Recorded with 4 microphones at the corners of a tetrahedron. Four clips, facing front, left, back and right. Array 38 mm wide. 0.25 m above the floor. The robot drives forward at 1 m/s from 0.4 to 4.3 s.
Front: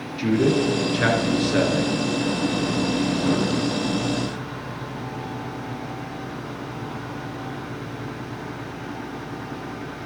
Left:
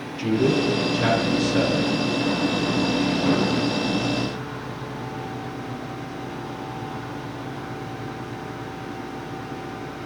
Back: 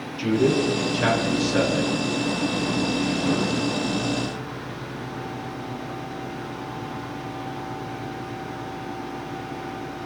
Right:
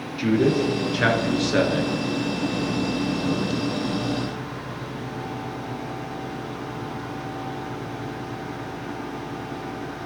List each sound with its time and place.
0.2 s a man speaking: 50° right, 4 m; by 2.0 s 70° right, 3.5 m